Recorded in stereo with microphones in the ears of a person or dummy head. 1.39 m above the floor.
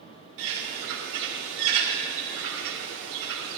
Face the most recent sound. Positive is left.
turn(degrees=-75)  # may be behind; listen again after turning